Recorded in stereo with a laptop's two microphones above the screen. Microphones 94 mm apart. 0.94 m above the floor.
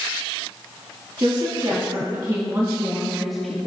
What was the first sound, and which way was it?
A woman speaking, 60° right (ahead or behind).